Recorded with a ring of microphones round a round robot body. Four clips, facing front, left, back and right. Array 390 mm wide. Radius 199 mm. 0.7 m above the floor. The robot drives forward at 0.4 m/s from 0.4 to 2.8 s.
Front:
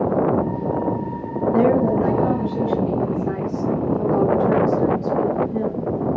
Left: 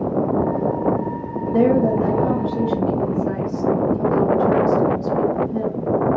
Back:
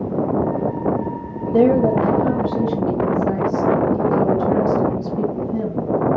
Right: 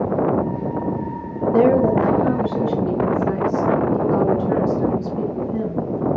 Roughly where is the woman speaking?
Behind right.